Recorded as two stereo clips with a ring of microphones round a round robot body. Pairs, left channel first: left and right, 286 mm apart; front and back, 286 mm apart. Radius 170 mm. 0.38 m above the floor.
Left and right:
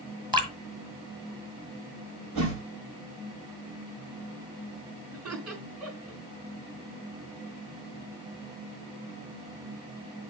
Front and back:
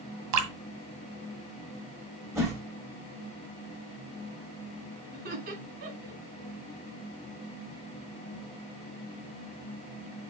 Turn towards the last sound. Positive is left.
turn(degrees=-120)